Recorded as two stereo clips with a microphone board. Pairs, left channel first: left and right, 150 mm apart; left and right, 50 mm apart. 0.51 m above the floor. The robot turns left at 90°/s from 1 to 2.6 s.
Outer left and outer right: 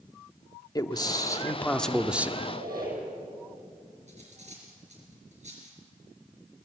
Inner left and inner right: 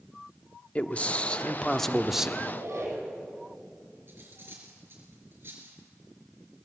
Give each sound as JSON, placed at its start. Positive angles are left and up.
{"t": 0.8, "sound": "a man speaking", "side_deg": 25, "distance_m": 0.8}
{"t": 2.4, "sound": "a squeak", "side_deg": -80, "distance_m": 9.0}
{"t": 4.1, "sound": "cutlery clinking", "side_deg": -50, "distance_m": 4.5}